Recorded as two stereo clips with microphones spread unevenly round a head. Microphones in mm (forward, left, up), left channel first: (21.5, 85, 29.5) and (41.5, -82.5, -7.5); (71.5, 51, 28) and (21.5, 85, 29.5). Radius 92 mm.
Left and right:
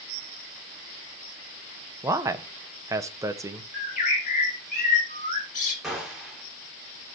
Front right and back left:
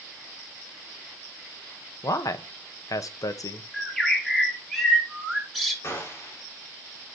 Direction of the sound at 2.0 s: 10° right.